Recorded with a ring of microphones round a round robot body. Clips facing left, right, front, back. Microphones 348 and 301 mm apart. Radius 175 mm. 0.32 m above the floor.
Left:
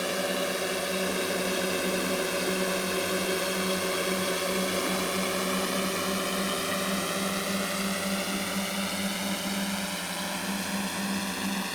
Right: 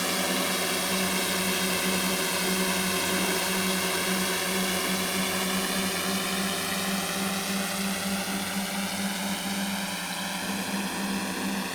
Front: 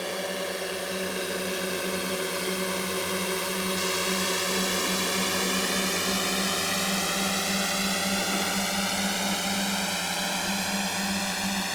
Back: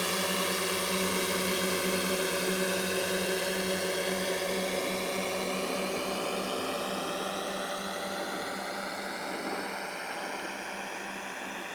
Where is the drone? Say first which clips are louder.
Even, front 1 dB; 125° right; by 11.8 s straight ahead.